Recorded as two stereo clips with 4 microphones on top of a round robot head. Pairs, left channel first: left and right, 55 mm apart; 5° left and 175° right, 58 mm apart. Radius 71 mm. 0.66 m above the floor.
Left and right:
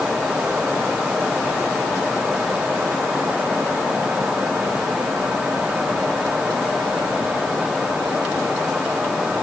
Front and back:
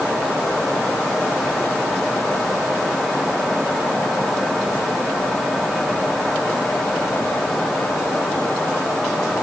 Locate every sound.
Only background noise.